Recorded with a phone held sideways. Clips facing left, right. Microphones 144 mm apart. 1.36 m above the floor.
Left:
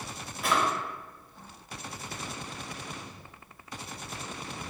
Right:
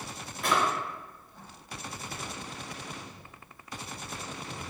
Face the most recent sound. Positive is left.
turn(degrees=0)  # may be behind; listen again after turning